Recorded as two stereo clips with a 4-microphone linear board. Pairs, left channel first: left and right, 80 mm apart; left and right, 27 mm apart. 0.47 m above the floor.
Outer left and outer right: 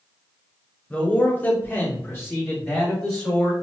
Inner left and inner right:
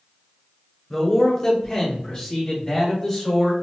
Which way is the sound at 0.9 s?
10° left (ahead or behind).